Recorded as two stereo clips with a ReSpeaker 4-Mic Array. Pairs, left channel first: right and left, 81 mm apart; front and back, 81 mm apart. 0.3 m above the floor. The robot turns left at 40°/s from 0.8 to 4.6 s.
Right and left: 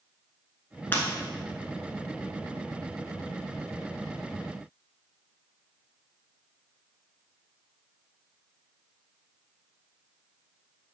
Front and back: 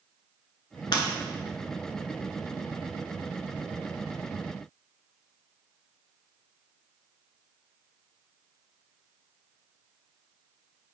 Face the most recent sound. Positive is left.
turn(degrees=-170)